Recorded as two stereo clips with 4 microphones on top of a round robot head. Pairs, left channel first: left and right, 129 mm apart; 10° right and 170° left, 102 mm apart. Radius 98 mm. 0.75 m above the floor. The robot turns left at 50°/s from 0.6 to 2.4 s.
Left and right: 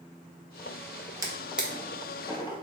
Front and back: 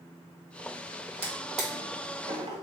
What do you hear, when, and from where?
1.2 s a drawer: 155° right, 0.9 m; by 2.6 s 145° left, 0.9 m